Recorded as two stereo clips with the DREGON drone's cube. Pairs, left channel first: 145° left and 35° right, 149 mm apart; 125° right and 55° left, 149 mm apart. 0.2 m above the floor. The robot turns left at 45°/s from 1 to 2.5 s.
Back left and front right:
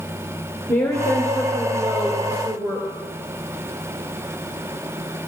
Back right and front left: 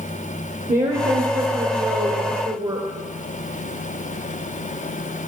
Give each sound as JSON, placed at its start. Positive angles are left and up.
{"t": 0.7, "sound": "a woman speaking", "azimuth_deg": 75, "distance_m": 3.0}